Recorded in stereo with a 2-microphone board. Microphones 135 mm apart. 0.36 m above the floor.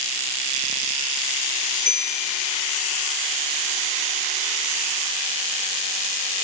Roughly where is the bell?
Right.